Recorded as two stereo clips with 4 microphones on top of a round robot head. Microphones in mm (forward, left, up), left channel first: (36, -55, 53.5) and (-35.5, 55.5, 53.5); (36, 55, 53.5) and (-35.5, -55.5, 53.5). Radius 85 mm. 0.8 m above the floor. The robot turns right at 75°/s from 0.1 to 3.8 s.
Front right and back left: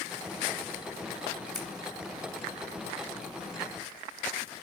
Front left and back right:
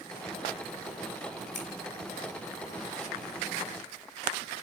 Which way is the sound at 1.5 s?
35° left.